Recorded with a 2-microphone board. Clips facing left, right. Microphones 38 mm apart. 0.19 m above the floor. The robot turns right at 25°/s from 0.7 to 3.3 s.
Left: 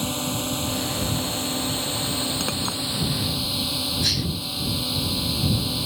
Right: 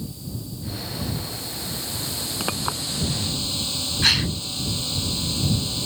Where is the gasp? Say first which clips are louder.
Right 9 dB; 55° right (ahead or behind).